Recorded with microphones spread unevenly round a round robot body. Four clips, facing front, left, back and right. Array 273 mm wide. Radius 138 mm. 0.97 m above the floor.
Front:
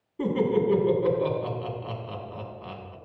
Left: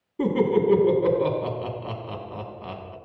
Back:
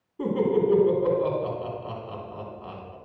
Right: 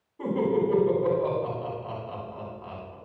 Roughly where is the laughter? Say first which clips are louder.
Left 4 dB, back 1 dB; ahead left.